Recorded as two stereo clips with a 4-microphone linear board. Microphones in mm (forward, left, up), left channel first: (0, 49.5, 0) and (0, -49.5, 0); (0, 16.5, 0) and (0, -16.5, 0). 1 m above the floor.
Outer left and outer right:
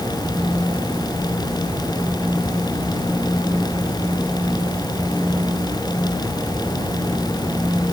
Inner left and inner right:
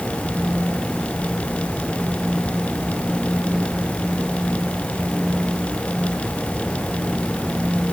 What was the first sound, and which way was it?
Only background noise.